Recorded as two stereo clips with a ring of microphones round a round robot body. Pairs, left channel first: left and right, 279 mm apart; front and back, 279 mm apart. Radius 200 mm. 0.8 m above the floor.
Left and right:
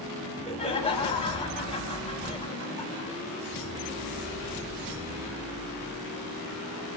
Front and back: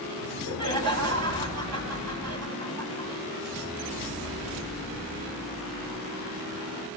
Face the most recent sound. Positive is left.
turn(degrees=160)